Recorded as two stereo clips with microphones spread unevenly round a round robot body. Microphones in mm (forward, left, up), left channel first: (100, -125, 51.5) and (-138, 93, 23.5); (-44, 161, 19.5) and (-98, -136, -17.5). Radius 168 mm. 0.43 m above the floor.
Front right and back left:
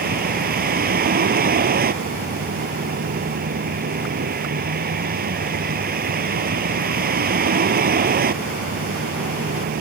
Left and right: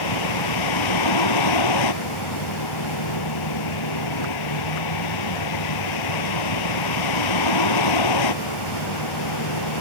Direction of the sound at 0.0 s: 75° left.